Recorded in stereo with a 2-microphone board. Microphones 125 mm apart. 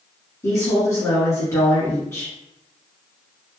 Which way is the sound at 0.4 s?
25° left (ahead or behind).